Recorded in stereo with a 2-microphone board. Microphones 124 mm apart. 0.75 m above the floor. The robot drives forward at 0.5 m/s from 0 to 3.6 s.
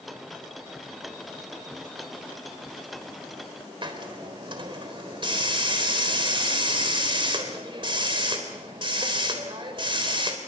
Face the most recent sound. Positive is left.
turn(degrees=-45)  # may be behind; listen again after turning